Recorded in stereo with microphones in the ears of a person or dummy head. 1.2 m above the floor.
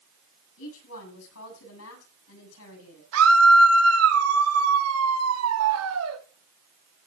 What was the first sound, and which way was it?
A woman speaking, 75° left (ahead or behind).